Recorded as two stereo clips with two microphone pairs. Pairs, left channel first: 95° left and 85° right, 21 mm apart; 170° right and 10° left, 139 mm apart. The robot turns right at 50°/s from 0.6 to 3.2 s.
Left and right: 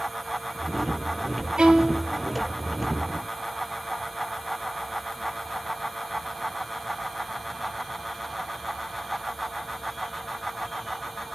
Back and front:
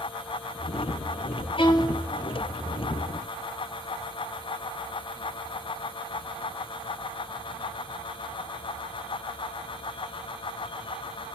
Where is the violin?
125° right, 0.8 m; by 2.1 s 100° right, 0.8 m.